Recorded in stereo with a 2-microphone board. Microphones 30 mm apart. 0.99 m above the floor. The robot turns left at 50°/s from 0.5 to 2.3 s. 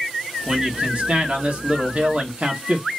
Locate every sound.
0.5 s a man speaking: 40° right, 1.5 m; by 2.9 s 130° right, 1.5 m